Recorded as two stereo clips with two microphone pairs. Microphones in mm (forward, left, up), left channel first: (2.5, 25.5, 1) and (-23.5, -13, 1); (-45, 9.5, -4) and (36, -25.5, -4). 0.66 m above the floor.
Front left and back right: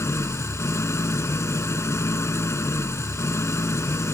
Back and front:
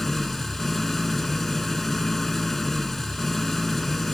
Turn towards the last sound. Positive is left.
turn(degrees=70)